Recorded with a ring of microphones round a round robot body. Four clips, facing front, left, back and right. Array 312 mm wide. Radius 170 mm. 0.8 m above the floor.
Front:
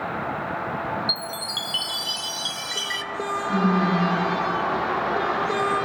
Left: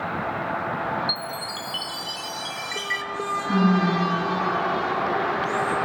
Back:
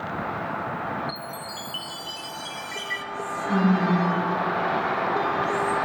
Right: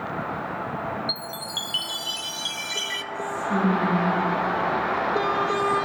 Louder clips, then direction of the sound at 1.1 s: Left 3 dB, front 2 dB; 25° right.